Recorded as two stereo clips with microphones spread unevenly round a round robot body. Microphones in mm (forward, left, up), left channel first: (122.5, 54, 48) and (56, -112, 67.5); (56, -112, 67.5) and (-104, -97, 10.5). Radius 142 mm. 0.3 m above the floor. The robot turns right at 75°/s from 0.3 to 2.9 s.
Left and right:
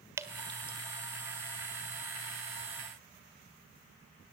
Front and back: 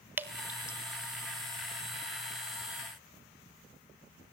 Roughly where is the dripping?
Behind.